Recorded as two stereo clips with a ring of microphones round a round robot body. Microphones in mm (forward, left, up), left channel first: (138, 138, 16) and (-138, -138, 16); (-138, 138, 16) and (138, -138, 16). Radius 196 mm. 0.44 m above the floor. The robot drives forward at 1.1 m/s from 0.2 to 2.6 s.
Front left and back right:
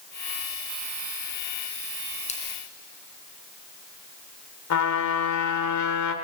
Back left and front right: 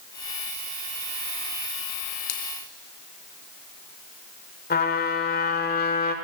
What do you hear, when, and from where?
2.3 s a splash: 120° left, 2.5 m
4.7 s a trumpet: 75° left, 1.7 m